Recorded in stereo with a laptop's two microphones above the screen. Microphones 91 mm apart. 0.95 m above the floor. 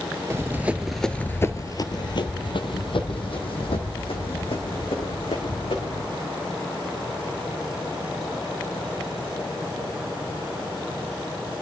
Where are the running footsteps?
30° right (ahead or behind), 1.2 m; by 6.0 s 80° left, 5 m.